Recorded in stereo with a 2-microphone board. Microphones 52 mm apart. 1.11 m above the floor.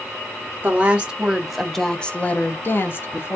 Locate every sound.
0.6 s a woman speaking: 25° right (ahead or behind), 0.9 m; by 3.4 s 45° left (ahead or behind), 1.0 m